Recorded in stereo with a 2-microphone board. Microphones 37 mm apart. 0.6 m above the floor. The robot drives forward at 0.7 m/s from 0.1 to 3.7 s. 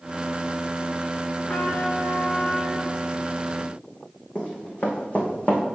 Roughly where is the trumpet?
Left.